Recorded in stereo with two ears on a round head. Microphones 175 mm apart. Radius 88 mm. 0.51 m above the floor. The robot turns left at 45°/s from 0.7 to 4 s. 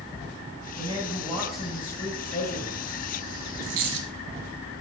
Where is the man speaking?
140° right, 3.5 m; by 3.0 s 120° left, 3.5 m.